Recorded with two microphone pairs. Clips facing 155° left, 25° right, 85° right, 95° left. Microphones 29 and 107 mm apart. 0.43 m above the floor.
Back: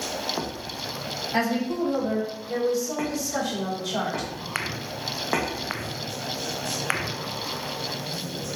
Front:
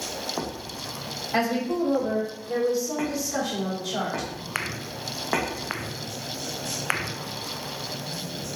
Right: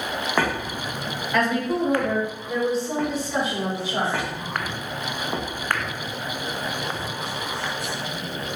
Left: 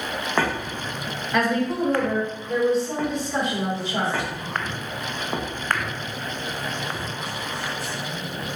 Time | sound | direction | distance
1.3 | a woman speaking | 15° left | 1.9 m